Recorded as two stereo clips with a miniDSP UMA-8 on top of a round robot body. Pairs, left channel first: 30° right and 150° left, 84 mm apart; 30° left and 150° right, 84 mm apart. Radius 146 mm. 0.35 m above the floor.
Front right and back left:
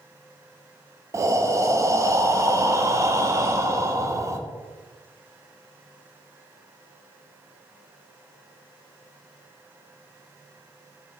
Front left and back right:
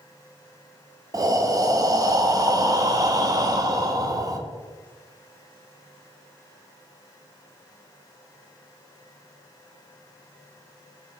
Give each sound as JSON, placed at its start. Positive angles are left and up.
{"t": 1.1, "sound": "breathing", "azimuth_deg": -175, "distance_m": 0.6}